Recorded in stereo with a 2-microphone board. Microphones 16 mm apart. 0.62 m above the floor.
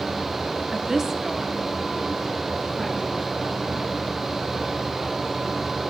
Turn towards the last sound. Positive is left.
turn(degrees=-5)  # may be behind; listen again after turning